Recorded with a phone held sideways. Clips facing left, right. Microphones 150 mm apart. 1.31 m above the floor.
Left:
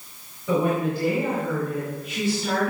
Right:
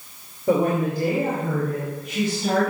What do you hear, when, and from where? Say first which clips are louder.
0.5 s a woman speaking: right 2 dB; 60° right (ahead or behind), 3 m; by 2.7 s 40° right (ahead or behind), 4.5 m